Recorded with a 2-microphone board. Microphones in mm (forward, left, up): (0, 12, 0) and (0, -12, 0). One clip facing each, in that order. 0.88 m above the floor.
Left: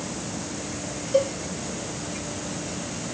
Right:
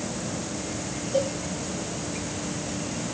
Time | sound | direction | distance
1.1 | a cowbell | 85° left | 3.5 m